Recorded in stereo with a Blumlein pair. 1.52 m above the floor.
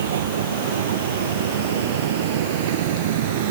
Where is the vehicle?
60° right; by 3.5 s 50° right.